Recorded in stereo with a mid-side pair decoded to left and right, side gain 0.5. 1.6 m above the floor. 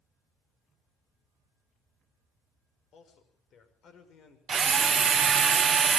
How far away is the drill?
About 1.1 m.